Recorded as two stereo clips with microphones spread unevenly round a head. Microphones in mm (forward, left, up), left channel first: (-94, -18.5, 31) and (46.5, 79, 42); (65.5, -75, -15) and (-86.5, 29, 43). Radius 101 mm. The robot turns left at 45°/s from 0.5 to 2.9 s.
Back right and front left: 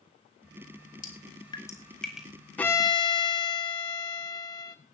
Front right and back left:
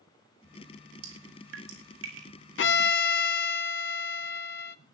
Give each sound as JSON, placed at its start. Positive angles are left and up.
{"t": 1.0, "sound": "dripping", "azimuth_deg": 170, "distance_m": 5.0}
{"t": 2.6, "sound": "a violin", "azimuth_deg": -60, "distance_m": 1.3}